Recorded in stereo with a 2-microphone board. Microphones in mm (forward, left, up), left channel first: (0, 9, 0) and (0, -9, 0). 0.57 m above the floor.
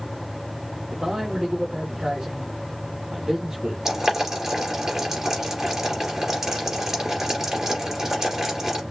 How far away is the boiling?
About 3 m.